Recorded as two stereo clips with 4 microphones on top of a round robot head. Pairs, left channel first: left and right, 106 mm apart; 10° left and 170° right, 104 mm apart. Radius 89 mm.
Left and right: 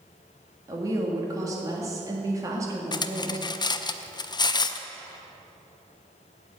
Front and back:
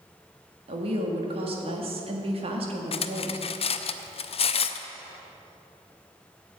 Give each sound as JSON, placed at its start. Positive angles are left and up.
{"t": 0.7, "sound": "a woman speaking", "azimuth_deg": -150, "distance_m": 1.8}
{"t": 2.9, "sound": "cutlery clinking", "azimuth_deg": 40, "distance_m": 0.6}